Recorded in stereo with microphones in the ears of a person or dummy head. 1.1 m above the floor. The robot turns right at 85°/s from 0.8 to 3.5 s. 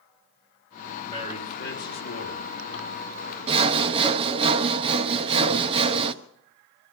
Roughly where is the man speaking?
Ahead.